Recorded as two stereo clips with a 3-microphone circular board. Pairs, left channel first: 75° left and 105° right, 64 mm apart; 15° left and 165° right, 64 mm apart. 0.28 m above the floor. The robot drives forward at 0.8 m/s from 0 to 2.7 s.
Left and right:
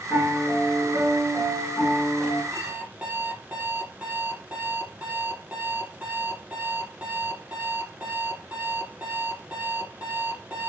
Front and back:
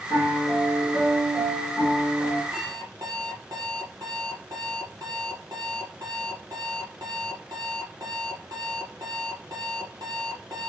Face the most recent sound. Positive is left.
turn(degrees=-175)